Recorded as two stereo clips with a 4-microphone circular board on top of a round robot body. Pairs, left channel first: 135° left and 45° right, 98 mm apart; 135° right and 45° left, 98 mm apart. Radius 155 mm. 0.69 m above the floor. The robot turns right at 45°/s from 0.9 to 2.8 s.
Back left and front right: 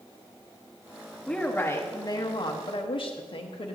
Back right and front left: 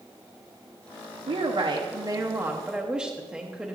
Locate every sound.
1.3 s a woman speaking: 55° left, 0.9 m; by 3.8 s 125° left, 0.9 m